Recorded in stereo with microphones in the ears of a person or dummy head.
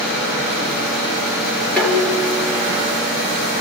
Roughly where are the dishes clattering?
Centre.